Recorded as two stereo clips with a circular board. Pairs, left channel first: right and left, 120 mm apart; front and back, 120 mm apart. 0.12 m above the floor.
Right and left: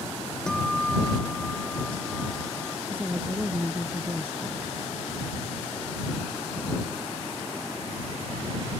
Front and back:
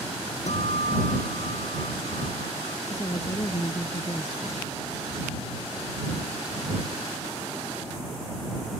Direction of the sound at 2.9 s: 25° left.